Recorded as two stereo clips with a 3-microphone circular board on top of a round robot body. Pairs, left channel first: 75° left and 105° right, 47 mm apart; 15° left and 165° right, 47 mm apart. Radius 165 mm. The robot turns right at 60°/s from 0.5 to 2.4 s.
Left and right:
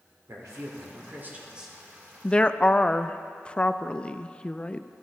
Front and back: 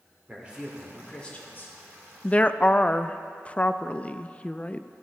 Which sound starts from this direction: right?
A man speaking, at 0.3 s.